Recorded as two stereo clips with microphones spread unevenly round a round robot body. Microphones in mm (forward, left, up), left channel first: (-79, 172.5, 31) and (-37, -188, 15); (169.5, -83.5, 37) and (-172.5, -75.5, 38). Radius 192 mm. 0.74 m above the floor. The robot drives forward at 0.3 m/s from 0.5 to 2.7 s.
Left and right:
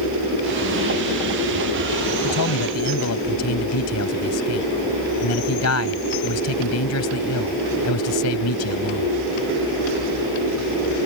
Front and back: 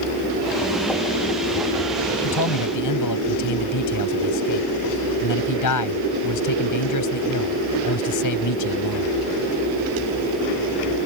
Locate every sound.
2.2 s a man speaking: 45° left